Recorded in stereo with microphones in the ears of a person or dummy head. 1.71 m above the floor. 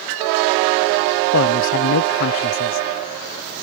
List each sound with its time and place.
1.3 s a woman speaking: 70° left (ahead or behind)